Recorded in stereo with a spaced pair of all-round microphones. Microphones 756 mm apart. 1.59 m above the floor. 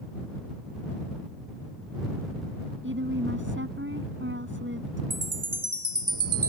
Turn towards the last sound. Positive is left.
turn(degrees=-40)  # may be behind; listen again after turning